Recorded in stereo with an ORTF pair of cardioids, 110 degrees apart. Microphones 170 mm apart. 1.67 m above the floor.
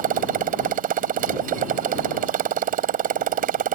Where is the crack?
I don't hear a crack.